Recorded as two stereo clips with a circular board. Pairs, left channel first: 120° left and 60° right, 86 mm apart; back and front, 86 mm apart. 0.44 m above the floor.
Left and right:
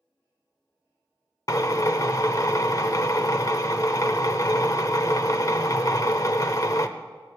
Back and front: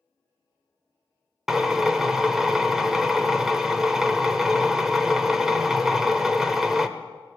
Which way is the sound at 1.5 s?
85° left.